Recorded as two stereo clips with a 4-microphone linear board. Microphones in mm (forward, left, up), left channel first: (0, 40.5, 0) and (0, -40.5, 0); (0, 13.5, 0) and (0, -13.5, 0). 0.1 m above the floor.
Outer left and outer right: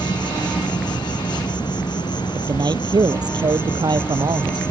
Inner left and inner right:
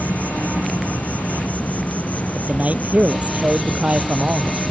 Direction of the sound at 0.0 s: 65° left (ahead or behind).